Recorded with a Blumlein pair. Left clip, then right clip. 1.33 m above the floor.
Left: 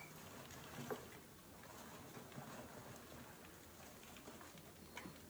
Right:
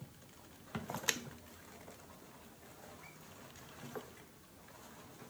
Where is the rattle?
I don't hear a rattle.